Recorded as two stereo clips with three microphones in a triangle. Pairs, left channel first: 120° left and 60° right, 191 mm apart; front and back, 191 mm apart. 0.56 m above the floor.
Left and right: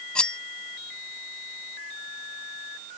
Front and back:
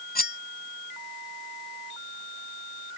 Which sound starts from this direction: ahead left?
Cutlery clinking, at 0.1 s.